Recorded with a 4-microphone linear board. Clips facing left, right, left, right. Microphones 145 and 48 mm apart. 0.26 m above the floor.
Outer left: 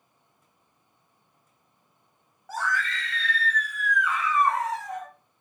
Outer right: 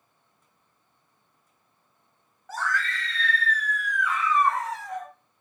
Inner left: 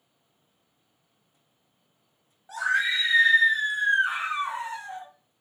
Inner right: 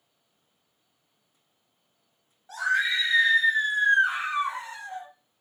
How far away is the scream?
About 1.1 m.